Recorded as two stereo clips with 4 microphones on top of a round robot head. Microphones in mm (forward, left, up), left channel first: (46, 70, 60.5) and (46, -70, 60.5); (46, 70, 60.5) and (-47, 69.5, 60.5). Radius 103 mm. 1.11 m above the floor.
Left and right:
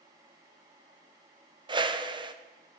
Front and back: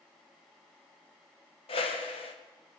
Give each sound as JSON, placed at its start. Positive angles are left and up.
{"t": 1.7, "sound": "a whoosh", "azimuth_deg": -30, "distance_m": 1.1}